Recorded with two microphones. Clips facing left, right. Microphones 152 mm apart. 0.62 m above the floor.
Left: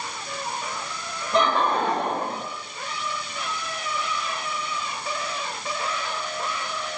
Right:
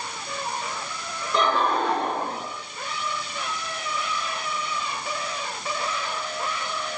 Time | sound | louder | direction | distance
1.3 | laughter | left 1 dB | 70° left (ahead or behind) | 3 m